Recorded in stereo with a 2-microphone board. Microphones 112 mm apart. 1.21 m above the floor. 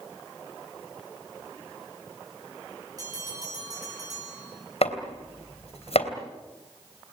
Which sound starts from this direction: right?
A bell, at 3.0 s.